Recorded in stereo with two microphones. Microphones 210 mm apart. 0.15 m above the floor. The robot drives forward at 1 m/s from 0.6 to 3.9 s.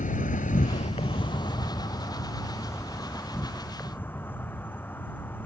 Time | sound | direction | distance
0.0 | an insect | 40° left (ahead or behind) | ?